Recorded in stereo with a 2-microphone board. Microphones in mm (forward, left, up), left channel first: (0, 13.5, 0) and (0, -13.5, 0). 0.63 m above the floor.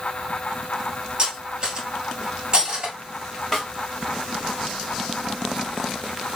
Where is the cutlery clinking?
35° right (ahead or behind), 1.6 m.